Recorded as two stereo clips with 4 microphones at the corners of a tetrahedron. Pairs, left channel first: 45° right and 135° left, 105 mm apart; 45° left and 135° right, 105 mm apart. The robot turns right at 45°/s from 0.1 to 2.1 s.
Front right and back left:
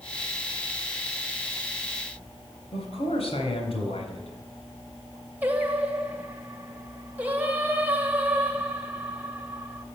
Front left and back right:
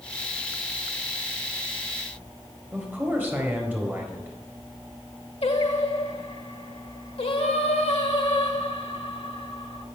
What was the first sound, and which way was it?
A man speaking, 60° right.